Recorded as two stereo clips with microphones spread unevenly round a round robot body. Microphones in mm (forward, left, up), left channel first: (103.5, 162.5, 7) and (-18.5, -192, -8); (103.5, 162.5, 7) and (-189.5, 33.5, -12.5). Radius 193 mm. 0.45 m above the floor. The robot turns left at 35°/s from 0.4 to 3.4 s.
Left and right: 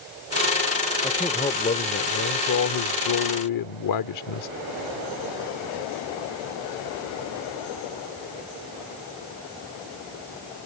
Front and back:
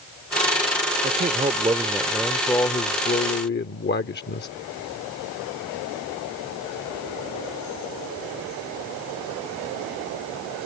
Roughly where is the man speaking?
Behind left.